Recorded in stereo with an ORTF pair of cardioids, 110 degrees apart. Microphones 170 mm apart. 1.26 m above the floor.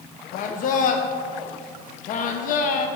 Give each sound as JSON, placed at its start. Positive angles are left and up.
{"t": 0.3, "sound": "a man speaking", "azimuth_deg": 55, "distance_m": 0.5}